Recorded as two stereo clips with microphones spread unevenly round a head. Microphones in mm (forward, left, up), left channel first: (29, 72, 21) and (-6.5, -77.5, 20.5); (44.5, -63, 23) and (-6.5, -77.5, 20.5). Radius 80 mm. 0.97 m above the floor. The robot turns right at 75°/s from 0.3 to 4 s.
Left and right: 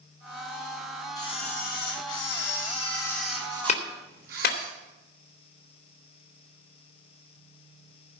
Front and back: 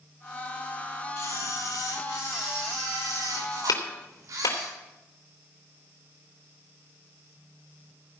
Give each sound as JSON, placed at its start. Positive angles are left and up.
{"t": 1.2, "sound": "a camera shutter", "azimuth_deg": 10, "distance_m": 5.0}
{"t": 3.7, "sound": "a clap", "azimuth_deg": 30, "distance_m": 2.5}